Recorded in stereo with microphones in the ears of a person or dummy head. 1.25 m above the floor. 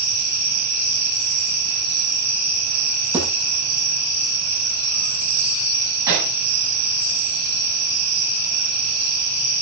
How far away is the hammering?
About 9.5 m.